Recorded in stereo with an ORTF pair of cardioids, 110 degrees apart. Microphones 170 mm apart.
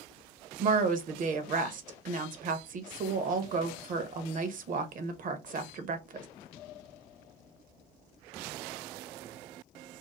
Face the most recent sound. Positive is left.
turn(degrees=-50)